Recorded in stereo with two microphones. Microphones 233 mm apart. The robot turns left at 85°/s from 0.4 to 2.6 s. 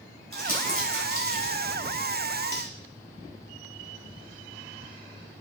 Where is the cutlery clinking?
35° left (ahead or behind), 1.1 m; by 2.7 s 30° left (ahead or behind), 1.1 m.